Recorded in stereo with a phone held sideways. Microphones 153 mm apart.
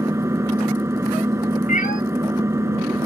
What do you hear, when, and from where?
0.0 s an engine running: 20° right (ahead or behind)
1.7 s a cat meowing: 65° left (ahead or behind)